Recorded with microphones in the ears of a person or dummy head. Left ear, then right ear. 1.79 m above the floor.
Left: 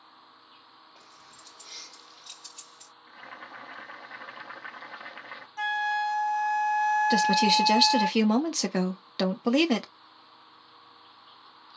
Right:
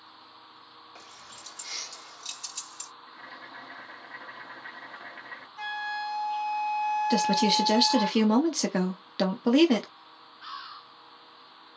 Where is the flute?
35° left (ahead or behind), 0.6 m.